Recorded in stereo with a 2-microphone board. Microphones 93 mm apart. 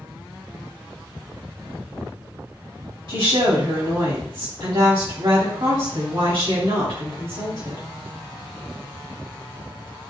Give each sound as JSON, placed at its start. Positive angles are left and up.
{"t": 3.1, "sound": "a woman speaking", "side_deg": -65, "distance_m": 2.5}